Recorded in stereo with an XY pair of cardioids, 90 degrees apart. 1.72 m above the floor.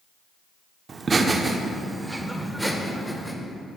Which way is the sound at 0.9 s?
45° right.